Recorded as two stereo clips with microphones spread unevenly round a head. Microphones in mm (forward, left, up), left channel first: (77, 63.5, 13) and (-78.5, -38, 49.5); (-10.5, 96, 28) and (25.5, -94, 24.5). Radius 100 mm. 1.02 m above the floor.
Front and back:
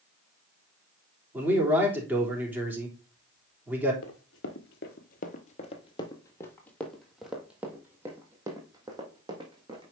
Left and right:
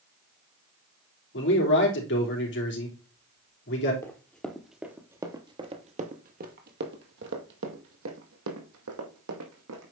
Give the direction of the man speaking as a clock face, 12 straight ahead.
8 o'clock.